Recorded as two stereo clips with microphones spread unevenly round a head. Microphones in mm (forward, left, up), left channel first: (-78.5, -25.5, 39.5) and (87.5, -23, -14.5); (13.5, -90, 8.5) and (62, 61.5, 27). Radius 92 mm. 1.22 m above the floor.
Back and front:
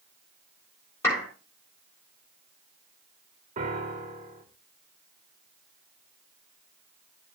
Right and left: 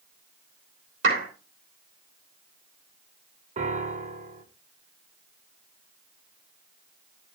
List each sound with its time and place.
1.0 s a clap: 100° left, 3.5 m
3.6 s a piano: 30° left, 1.3 m